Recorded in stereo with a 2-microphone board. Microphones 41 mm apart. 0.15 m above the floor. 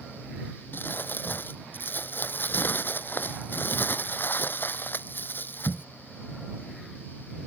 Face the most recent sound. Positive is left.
turn(degrees=55)  # may be behind; listen again after turning